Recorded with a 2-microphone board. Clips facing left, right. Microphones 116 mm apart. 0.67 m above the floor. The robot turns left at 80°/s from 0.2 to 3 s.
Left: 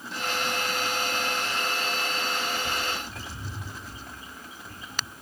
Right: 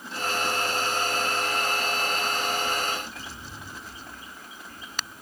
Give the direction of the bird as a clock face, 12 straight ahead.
9 o'clock.